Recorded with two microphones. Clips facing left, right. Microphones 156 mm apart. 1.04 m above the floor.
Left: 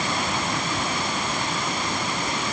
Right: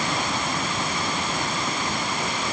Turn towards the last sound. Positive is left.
No sound to turn to.